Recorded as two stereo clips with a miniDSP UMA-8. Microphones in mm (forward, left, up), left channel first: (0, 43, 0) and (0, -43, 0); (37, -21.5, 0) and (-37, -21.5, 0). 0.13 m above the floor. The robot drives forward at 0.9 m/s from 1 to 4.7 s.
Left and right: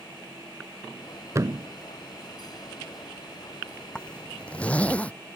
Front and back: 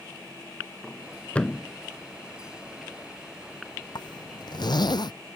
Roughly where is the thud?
Ahead right.